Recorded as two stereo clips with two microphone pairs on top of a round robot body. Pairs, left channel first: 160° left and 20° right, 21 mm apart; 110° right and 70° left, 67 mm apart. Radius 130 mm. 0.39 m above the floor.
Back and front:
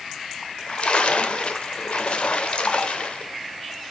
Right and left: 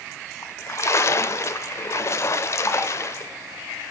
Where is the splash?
160° right, 0.7 m.